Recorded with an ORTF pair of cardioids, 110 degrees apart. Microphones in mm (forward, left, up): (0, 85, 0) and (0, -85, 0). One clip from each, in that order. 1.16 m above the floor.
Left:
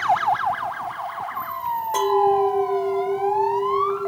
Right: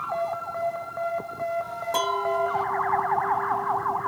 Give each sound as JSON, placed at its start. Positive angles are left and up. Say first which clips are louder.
{"t": 1.9, "sound": "a clink", "louder": "left 6 dB", "azimuth_deg": 0, "distance_m": 1.3}